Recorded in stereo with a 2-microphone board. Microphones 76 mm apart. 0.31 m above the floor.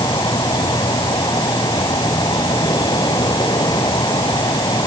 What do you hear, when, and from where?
0.0 s an insect: 70° left (ahead or behind)